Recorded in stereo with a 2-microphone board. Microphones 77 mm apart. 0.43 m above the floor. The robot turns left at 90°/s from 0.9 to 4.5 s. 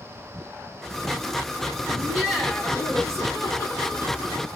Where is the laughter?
135° right, 1.5 m; by 4.5 s 5° right, 1.5 m.